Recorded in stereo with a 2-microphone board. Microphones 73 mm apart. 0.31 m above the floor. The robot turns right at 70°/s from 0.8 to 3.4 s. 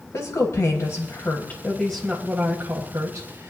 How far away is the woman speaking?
About 1.5 m.